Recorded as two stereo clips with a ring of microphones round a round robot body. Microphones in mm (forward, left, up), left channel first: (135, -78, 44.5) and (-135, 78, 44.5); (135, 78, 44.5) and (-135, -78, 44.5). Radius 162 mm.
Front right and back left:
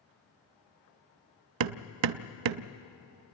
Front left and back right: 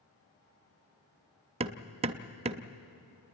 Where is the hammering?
140° left, 0.5 m.